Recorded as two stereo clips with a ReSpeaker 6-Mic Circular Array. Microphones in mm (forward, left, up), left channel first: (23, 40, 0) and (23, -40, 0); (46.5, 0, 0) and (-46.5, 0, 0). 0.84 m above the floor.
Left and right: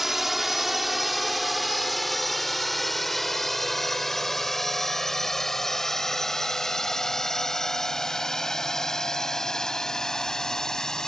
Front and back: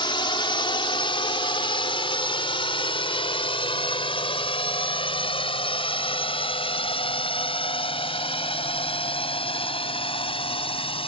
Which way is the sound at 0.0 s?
5° right.